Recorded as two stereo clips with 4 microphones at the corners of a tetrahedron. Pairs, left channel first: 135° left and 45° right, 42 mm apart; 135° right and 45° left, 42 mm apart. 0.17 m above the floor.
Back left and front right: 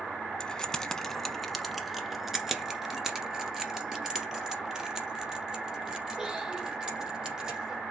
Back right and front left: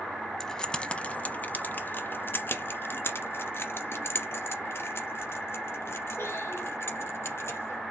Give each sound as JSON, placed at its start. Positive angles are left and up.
{"t": 0.4, "sound": "keys jangling", "azimuth_deg": 165, "distance_m": 0.9}